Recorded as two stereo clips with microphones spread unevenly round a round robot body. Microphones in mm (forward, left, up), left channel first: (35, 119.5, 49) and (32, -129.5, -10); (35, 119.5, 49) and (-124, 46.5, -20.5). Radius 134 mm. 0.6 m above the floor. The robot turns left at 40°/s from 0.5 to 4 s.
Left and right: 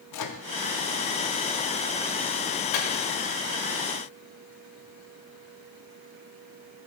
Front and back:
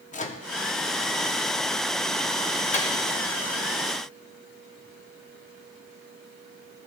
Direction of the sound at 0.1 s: 85° left.